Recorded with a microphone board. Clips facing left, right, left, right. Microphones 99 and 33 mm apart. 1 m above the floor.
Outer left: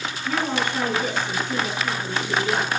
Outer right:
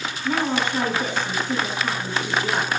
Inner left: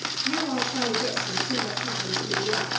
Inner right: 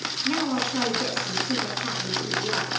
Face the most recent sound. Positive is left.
turn(degrees=-30)  # may be behind; listen again after turning